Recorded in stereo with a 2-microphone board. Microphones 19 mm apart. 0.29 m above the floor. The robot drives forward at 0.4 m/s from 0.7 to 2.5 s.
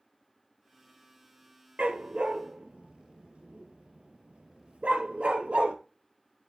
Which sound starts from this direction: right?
A dog barking, at 1.8 s.